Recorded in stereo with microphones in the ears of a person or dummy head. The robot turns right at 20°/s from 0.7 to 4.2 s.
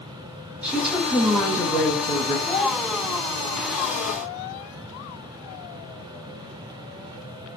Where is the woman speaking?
5° right, 0.8 m; by 2.4 s 30° left, 0.8 m.